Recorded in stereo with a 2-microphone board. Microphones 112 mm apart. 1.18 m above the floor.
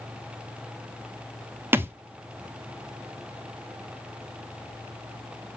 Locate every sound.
1.7 s a thud: 20° right (ahead or behind), 0.7 m